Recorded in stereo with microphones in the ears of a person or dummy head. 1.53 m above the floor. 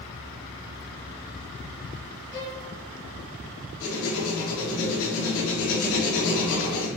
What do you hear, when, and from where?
2.3 s a violin: 55° left (ahead or behind), 0.7 m
3.8 s writing: 65° left (ahead or behind), 0.8 m